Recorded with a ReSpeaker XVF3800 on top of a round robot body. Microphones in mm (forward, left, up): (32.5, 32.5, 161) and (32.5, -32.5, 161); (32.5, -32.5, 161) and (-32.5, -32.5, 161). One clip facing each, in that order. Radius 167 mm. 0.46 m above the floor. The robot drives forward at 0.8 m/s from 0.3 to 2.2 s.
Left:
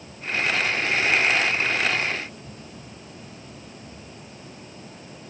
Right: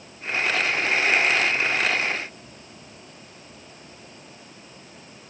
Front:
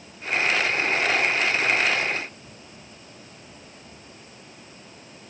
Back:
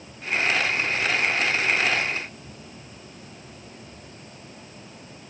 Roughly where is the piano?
I don't hear a piano.